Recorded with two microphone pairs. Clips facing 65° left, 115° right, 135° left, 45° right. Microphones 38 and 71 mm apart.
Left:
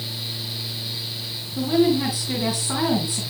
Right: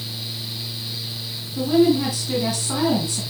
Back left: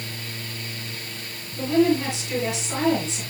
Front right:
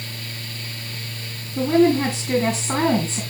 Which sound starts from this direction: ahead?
A woman speaking, at 1.6 s.